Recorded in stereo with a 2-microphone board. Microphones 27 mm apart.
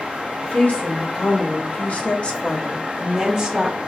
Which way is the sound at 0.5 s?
60° left (ahead or behind).